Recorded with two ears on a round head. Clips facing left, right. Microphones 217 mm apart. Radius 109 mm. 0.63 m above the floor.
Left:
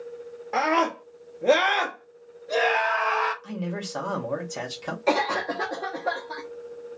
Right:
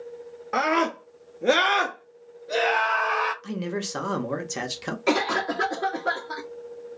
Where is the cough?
15° right (ahead or behind), 0.5 m.